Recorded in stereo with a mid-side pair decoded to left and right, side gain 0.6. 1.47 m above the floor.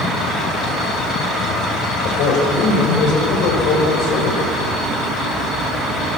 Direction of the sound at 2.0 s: 65° left.